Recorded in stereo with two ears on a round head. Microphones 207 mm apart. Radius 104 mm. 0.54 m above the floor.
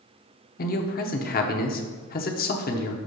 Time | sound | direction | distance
0.6 | a man speaking | 45° left (ahead or behind) | 0.9 m